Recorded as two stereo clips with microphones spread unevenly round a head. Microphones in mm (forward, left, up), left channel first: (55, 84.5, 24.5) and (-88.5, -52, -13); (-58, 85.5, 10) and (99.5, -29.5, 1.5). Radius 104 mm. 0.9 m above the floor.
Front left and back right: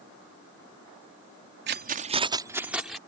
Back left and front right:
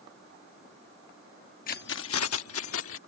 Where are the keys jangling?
165° right; by 3.0 s 135° left.